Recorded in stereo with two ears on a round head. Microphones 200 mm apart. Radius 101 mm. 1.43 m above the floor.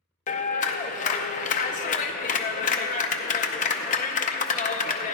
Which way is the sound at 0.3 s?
35° left (ahead or behind).